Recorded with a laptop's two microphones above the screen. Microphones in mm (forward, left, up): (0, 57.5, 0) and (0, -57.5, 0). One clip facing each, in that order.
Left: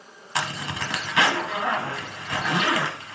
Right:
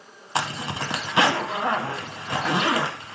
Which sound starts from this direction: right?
A zipper, at 0.3 s.